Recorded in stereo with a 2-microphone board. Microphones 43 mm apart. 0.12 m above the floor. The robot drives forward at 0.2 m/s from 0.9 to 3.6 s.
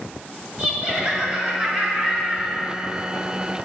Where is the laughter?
25° right (ahead or behind), 1.9 m.